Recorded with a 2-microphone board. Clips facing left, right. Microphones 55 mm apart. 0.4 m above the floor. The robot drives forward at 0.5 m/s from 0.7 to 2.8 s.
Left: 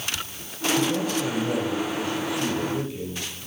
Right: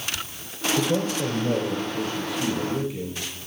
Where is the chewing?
No chewing in this recording.